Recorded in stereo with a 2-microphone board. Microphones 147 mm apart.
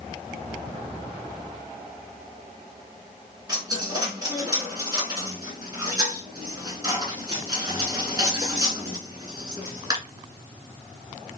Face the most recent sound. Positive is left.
turn(degrees=-25)  # may be behind; listen again after turning